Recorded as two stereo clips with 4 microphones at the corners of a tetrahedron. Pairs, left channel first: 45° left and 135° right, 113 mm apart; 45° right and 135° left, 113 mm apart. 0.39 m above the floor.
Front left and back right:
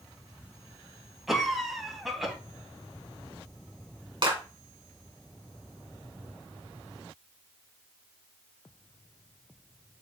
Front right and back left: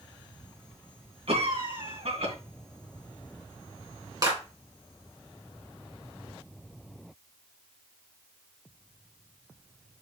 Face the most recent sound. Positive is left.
turn(degrees=-175)